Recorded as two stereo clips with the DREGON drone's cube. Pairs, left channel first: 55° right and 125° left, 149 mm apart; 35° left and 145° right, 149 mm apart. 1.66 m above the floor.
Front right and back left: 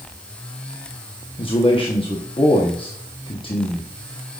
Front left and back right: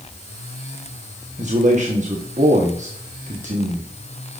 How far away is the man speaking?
About 1.4 m.